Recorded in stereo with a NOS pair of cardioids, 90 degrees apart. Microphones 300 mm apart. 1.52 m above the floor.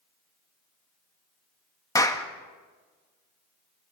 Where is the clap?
10° left, 1.7 m.